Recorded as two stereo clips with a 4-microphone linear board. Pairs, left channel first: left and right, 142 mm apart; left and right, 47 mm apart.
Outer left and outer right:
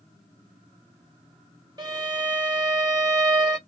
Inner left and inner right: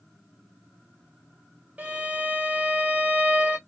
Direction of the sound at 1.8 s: 30° right (ahead or behind).